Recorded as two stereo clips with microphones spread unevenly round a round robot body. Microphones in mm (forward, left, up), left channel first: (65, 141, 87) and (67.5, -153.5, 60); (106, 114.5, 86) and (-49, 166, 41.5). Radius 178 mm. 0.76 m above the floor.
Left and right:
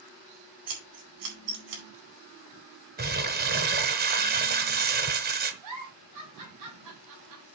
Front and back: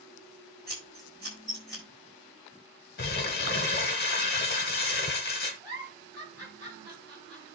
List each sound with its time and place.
0.7 s scissors: 95° right, 5 m
3.0 s crumpling: 30° right, 1.2 m
5.6 s a giggle: 115° right, 4.5 m